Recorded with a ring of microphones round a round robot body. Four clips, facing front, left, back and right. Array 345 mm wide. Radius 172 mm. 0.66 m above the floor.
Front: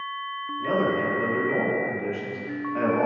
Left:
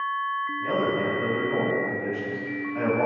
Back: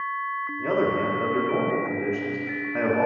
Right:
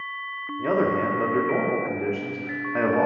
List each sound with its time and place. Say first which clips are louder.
0.6 s a man speaking: right 5 dB, even; 105° right, 1.5 m